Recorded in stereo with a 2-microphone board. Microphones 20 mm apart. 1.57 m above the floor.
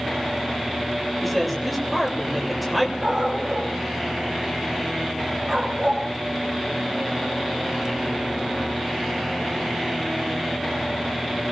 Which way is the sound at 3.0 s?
30° right (ahead or behind).